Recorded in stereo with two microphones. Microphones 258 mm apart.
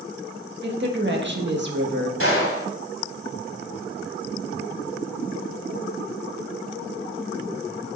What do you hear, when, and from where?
0.6 s a woman speaking: 50° right (ahead or behind), 1.5 m
2.2 s a gunshot: 60° right (ahead or behind), 3 m